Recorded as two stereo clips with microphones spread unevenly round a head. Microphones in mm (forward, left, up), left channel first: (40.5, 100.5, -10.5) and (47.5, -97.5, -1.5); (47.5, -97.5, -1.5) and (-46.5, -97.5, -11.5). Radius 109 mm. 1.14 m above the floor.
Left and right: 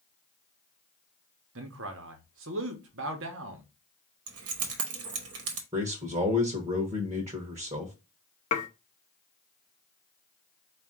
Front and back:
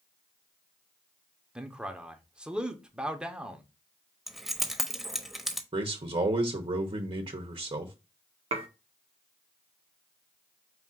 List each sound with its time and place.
1.6 s a man speaking: 105° right, 1.0 m
4.3 s keys jangling: 90° right, 1.1 m
5.7 s a man speaking: 150° right, 0.8 m
8.5 s dishes clattering: 145° left, 0.6 m